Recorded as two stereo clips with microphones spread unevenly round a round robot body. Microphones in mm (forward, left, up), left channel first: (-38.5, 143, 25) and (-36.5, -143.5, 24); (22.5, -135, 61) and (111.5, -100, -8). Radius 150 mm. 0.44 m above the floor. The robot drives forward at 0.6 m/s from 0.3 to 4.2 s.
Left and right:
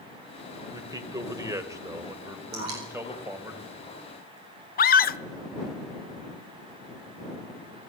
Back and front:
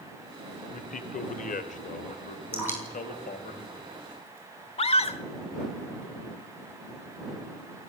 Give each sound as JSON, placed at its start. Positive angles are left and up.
{"t": 0.7, "sound": "a man speaking", "azimuth_deg": -165, "distance_m": 2.0}
{"t": 2.5, "sound": "dripping", "azimuth_deg": -40, "distance_m": 9.5}
{"t": 4.8, "sound": "a scream", "azimuth_deg": 140, "distance_m": 1.1}